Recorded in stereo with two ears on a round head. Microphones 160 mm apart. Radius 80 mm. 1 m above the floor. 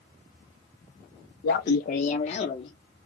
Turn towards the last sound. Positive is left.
turn(degrees=35)  # may be behind; listen again after turning